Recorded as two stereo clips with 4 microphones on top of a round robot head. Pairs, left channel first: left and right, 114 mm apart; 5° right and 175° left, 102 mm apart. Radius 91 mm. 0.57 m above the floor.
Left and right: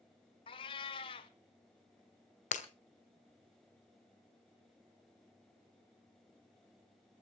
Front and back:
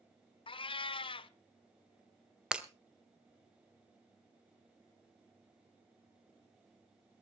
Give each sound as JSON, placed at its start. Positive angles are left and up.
{"t": 0.5, "sound": "a cat meowing", "azimuth_deg": 35, "distance_m": 0.7}
{"t": 2.5, "sound": "breaking glass", "azimuth_deg": 95, "distance_m": 1.6}